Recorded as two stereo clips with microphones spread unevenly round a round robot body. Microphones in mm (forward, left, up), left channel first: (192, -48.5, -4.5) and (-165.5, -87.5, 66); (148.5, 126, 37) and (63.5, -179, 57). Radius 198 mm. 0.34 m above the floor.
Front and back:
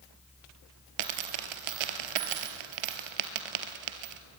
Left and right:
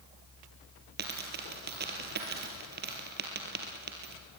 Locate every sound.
1.0 s a dropped coin: 170° right, 1.5 m